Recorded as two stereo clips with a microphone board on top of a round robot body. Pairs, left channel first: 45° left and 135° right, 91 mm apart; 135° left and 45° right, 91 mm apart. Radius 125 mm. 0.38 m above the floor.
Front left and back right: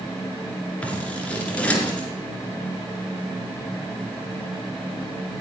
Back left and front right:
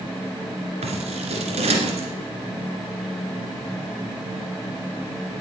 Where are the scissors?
35° right, 2 m.